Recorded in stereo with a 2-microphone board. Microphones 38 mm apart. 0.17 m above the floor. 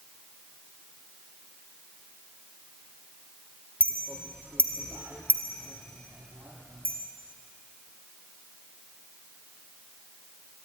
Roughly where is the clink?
Right.